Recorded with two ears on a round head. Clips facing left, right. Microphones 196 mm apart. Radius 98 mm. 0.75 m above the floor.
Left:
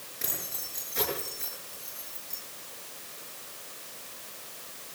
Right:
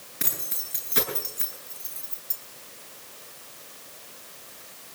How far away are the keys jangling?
About 8.5 m.